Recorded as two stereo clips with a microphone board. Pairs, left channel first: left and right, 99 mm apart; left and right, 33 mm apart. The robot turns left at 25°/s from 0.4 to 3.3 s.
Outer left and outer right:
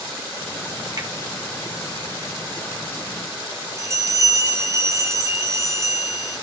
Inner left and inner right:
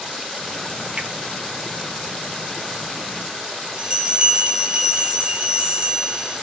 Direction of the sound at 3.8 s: 30° right (ahead or behind).